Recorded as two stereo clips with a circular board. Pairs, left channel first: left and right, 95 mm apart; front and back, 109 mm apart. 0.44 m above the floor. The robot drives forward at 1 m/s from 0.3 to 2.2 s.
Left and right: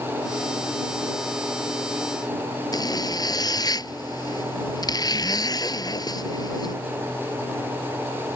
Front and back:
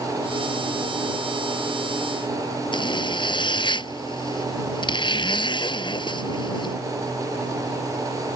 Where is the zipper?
45° left.